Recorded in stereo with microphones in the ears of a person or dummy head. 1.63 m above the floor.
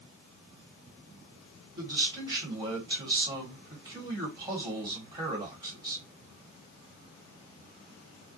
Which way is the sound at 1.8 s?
20° right (ahead or behind).